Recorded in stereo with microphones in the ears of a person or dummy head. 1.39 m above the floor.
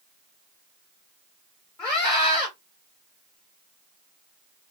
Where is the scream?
10° left (ahead or behind), 1.0 m.